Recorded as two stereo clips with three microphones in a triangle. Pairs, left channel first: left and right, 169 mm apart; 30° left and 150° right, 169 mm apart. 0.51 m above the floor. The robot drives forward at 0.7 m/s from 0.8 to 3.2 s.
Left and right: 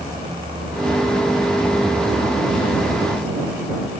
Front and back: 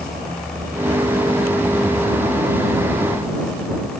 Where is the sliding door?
I don't hear a sliding door.